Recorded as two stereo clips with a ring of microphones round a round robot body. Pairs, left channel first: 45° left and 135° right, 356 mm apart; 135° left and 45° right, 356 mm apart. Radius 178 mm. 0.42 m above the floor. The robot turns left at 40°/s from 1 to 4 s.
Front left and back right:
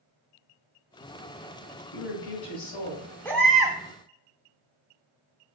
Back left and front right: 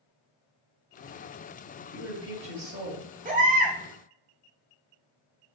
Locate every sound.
1.9 s a woman speaking: 45° left, 2 m; by 3.0 s straight ahead, 2 m
3.2 s a baby crying: 30° right, 0.7 m; by 3.8 s 50° right, 0.7 m